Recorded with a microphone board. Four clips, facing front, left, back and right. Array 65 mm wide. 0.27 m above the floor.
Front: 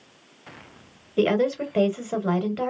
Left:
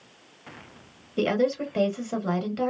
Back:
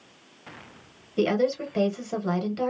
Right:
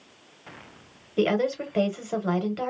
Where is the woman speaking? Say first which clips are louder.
Even, front 2 dB; 15° right, 0.9 m.